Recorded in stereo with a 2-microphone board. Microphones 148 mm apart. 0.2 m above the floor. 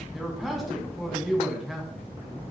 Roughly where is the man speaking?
Centre.